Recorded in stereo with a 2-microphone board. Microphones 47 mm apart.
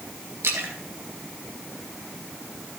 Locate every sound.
0.4 s a splash: 75° right (ahead or behind), 2.5 m